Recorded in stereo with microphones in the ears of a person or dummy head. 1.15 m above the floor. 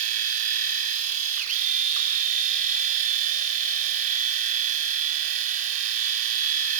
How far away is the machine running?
About 5 m.